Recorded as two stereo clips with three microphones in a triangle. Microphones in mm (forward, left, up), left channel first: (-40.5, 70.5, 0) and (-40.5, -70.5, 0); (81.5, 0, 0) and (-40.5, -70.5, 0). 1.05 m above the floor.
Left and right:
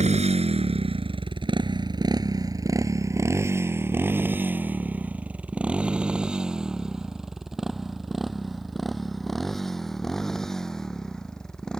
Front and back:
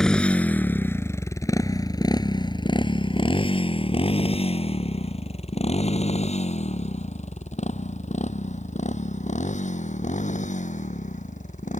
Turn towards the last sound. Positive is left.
turn(degrees=5)